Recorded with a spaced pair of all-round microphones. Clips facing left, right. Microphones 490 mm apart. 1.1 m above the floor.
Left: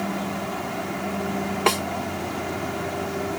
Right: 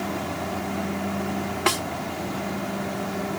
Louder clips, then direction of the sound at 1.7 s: Left 3 dB; 35° right (ahead or behind).